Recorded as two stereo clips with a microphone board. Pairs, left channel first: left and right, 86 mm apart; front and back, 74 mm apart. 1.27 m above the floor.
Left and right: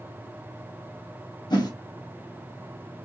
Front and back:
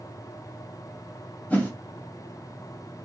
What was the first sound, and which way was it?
A whoosh, 65° left.